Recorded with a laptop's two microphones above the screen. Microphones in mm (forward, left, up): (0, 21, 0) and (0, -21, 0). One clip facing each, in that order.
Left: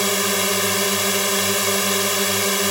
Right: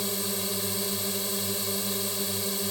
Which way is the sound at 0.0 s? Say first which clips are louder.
Left 12 dB; 70° left (ahead or behind).